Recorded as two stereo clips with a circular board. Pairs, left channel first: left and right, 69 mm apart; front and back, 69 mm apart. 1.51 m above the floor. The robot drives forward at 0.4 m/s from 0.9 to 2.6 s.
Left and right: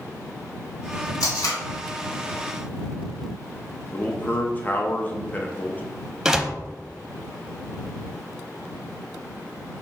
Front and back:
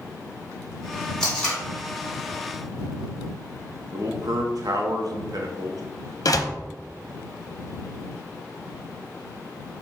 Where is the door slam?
10° right, 0.5 m.